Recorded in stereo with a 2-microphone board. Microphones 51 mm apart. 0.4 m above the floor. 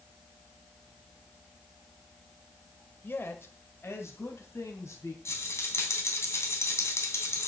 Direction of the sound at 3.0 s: 45° left (ahead or behind).